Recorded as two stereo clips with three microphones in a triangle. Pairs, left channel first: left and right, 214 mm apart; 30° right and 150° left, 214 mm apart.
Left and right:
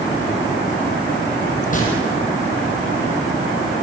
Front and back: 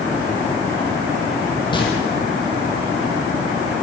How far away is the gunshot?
About 5.5 m.